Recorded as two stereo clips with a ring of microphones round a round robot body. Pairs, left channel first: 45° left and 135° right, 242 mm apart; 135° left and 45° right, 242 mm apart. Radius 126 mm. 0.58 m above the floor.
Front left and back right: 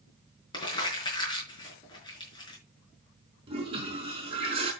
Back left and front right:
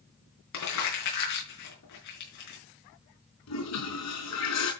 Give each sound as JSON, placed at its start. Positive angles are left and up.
{"t": 0.5, "sound": "crumpling", "azimuth_deg": 120, "distance_m": 6.0}
{"t": 3.5, "sound": "a toilet flushing", "azimuth_deg": 155, "distance_m": 5.0}